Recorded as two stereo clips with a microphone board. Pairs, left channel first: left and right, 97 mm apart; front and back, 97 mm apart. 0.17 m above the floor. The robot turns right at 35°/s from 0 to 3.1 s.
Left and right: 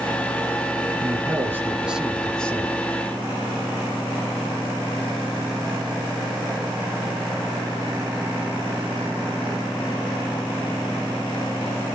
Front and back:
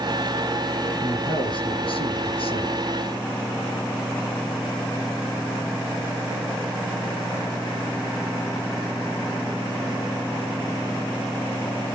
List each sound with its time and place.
1.0 s a man speaking: 40° right, 3.5 m; by 2.8 s 20° left, 3.5 m